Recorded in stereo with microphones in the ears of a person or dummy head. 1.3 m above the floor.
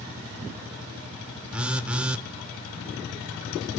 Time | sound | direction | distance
1.5 | a phone buzzing | 10° right (ahead or behind) | 0.5 m